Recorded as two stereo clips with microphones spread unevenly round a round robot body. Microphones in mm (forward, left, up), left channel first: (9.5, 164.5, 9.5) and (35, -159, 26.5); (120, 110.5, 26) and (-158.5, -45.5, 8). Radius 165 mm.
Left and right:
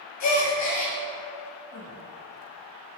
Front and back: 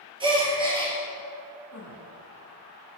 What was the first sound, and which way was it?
A gasp, 135° left.